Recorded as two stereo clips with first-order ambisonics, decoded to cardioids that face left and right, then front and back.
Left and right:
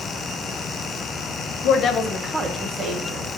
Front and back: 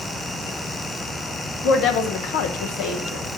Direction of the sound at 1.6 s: 50° left.